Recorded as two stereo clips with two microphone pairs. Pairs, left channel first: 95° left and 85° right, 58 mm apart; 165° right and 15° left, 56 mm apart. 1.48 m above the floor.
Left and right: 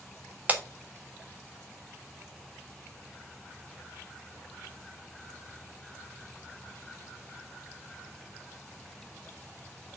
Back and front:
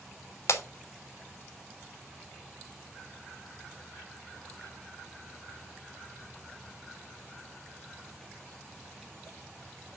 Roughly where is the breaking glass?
Behind right.